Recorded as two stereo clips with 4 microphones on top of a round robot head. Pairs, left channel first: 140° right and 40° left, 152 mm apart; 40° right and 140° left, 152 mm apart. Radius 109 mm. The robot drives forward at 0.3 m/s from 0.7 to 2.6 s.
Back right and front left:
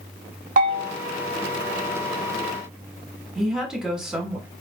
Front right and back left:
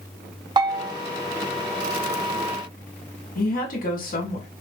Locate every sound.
0.6 s a bell: 80° left, 0.9 m; by 0.9 s 85° left, 0.9 m
3.4 s a woman speaking: 50° right, 1.5 m